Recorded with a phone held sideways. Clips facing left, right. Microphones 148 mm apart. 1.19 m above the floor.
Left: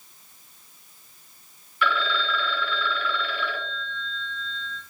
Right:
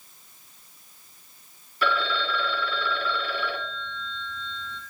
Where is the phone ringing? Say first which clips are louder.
Even; 35° right (ahead or behind), 1.2 m.